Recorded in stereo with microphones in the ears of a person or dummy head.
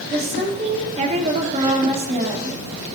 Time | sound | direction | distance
0.1 | a woman speaking | 40° right (ahead or behind) | 3 m